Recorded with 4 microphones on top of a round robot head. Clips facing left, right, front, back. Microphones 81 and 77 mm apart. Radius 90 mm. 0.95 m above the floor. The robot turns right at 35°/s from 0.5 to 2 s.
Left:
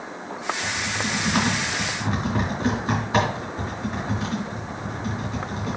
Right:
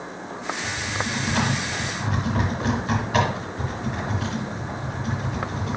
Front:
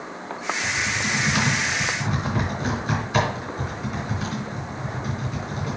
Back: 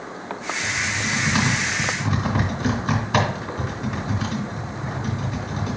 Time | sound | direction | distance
0.6 | typing on a keyboard | 110° left | 3.5 m